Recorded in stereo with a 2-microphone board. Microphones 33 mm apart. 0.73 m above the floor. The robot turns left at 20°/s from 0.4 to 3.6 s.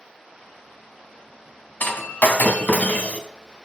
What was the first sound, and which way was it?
Breaking glass, 75° left (ahead or behind).